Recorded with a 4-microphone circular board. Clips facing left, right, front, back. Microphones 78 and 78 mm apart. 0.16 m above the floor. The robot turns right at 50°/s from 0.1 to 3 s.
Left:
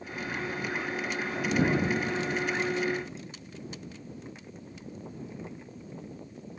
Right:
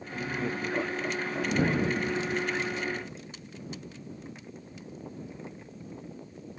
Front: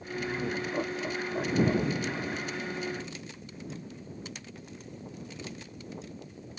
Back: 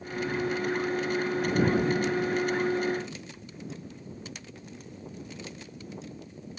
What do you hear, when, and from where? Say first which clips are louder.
0.1 s laughter: right 2 dB, back 3 dB; 75° right; by 2.8 s 60° left